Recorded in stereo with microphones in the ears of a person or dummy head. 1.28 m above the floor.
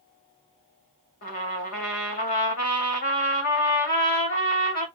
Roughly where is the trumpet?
Left.